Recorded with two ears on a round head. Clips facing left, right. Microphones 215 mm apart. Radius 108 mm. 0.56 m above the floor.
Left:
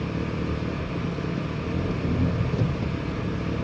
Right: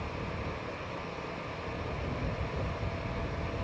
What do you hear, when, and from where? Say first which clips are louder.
0.0 s an engine running: left 10 dB; 60° left (ahead or behind)